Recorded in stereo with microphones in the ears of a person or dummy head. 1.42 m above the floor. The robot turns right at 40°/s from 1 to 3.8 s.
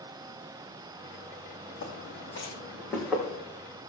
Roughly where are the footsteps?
Left.